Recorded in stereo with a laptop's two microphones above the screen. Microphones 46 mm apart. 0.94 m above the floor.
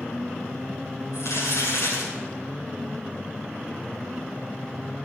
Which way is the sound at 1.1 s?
85° left.